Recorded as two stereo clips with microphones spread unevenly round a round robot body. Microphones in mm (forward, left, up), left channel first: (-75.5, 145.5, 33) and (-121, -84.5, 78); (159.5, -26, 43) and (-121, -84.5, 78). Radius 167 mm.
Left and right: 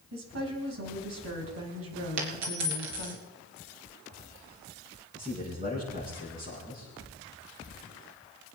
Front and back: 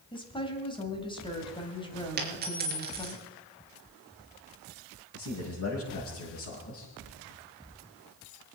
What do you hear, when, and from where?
0.1 s a woman speaking: 60° right, 3 m
2.2 s a dropped coin: 110° right, 3.5 m
5.1 s a man speaking: 25° right, 6.5 m